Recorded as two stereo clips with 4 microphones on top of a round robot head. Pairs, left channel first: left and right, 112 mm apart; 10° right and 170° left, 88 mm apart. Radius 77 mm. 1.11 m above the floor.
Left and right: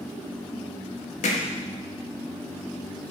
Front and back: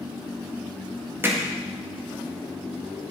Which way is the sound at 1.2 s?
105° left.